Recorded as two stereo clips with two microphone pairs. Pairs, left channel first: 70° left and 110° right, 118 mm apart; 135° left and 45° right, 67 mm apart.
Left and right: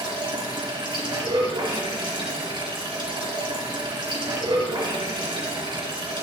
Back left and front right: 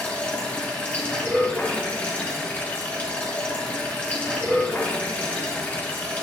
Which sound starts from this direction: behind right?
Running water, at 0.0 s.